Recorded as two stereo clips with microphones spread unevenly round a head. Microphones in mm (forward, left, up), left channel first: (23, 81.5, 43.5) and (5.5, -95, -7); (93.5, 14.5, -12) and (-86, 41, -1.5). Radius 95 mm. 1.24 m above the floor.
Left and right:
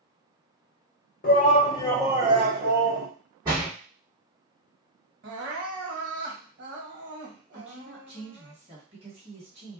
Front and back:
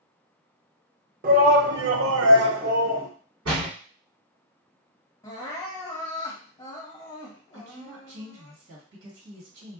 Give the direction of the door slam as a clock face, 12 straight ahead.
6 o'clock.